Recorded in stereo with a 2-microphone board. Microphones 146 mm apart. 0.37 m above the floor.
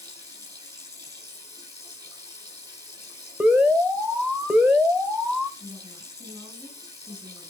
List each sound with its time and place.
0.0 s running water: 25° right (ahead or behind), 5 m
3.4 s an alarm: 10° right (ahead or behind), 1.3 m
5.6 s a woman speaking: 10° right (ahead or behind), 3 m